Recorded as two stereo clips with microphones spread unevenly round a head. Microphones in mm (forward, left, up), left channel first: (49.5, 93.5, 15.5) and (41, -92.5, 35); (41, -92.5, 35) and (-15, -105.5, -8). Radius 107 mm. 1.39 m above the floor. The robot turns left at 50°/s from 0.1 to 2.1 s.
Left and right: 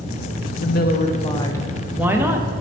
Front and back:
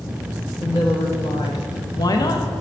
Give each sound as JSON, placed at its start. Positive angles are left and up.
{"t": 0.6, "sound": "a woman speaking", "azimuth_deg": 60, "distance_m": 1.0}